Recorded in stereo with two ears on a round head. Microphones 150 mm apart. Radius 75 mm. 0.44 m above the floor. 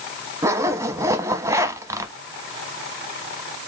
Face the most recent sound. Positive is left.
turn(degrees=-20)  # may be behind; listen again after turning